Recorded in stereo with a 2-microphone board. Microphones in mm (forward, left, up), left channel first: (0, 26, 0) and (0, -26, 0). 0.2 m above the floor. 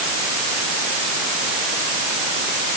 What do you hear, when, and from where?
Only background noise.